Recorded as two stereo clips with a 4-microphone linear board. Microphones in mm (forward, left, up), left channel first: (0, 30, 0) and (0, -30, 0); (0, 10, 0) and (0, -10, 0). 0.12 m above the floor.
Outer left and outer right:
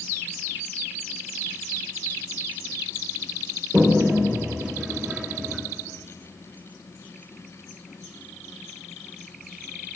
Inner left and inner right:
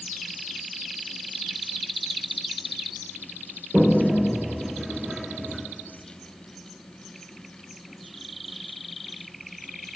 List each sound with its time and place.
3.7 s a toilet flushing: 10° right (ahead or behind), 4 m